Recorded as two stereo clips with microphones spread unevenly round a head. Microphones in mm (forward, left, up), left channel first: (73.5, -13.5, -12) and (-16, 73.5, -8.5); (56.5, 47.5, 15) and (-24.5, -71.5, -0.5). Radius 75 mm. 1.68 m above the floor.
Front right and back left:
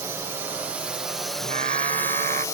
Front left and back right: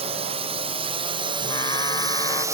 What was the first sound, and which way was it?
A drone, 160° right.